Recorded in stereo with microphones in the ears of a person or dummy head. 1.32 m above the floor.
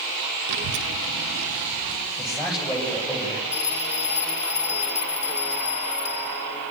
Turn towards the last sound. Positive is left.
turn(degrees=10)  # may be behind; listen again after turning